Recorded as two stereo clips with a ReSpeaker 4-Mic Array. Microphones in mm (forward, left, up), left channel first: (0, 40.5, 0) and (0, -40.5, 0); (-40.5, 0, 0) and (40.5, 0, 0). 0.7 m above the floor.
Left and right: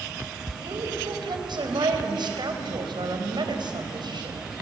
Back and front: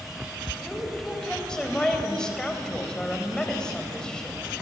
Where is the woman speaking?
100° right, 3.5 m.